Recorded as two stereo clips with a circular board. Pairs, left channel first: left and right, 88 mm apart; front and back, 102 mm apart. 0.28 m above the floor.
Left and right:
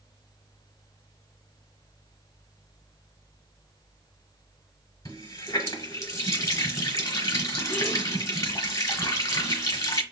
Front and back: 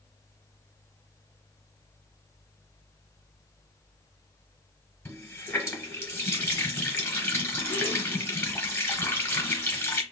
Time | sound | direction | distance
5.0 | a running tap | 60° left | 1.1 m